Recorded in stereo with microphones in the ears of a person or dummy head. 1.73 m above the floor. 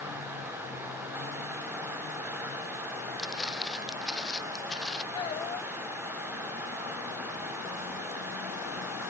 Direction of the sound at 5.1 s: 25° left (ahead or behind).